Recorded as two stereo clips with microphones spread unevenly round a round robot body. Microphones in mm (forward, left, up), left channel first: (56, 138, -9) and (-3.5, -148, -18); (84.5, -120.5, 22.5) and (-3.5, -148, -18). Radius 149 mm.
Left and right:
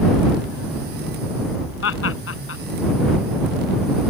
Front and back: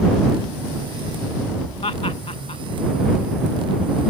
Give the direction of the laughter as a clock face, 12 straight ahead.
11 o'clock.